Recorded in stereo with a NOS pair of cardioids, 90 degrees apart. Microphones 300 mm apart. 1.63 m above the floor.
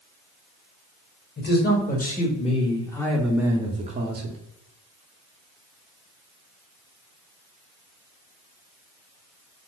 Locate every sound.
1.4 s a man speaking: 35° left, 1.5 m; by 4.4 s 45° right, 0.8 m